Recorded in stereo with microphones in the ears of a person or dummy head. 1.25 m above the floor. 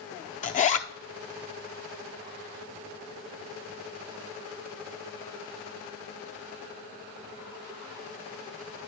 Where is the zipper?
35° left (ahead or behind), 0.5 m.